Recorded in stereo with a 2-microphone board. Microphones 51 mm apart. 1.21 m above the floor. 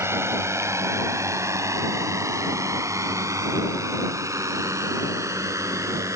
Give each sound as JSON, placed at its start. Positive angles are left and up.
{"t": 0.0, "sound": "a drone", "side_deg": -60}